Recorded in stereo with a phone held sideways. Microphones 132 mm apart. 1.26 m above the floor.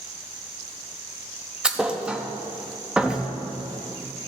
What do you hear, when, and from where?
1.6 s a thud: 5° right (ahead or behind), 0.7 m